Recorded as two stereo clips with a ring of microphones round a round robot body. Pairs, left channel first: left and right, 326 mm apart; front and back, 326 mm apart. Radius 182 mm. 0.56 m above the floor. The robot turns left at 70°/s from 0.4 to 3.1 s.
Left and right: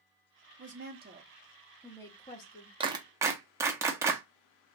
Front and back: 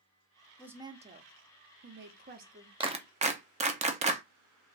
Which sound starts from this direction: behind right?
A clap, at 2.8 s.